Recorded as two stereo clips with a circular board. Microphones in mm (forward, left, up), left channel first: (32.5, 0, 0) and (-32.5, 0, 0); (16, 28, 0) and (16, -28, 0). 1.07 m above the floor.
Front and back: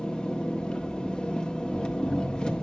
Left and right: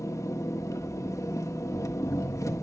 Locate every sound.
0.0 s an engine running: 75° left, 1.3 m